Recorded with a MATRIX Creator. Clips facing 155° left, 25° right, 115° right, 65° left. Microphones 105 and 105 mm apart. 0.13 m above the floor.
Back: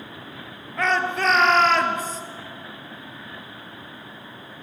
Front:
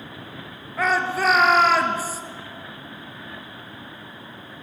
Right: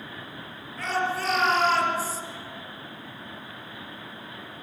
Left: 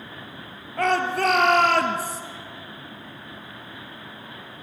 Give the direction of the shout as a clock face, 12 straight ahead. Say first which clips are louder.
Front 1 dB, left 6 dB; 10 o'clock.